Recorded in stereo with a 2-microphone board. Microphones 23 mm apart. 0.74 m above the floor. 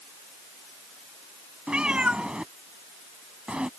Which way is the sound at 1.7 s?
55° right (ahead or behind).